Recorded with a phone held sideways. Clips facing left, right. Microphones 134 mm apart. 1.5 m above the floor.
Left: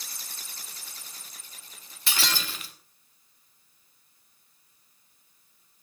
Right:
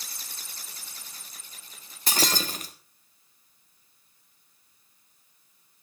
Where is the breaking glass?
45° right (ahead or behind), 1.2 m.